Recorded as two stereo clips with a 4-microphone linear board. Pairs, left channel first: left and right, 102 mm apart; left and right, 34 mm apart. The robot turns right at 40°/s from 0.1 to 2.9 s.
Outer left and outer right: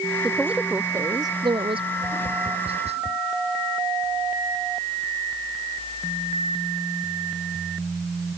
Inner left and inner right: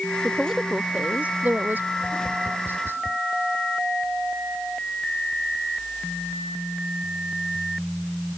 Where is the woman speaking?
Straight behind; by 1.9 s 115° right.